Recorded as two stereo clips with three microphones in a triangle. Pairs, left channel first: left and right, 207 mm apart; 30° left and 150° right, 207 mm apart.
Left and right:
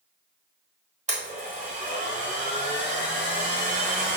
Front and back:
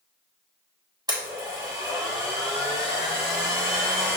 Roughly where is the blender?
Right.